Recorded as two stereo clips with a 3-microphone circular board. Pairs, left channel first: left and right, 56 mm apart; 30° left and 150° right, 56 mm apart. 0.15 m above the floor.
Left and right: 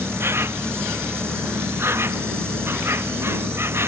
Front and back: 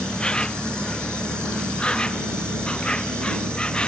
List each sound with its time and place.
0.0 s an insect: 45° right